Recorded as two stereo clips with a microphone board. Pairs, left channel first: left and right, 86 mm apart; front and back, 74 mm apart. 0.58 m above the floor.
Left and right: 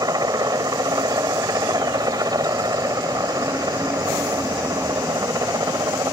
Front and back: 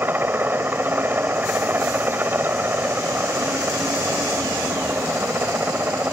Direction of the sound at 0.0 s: 120° right.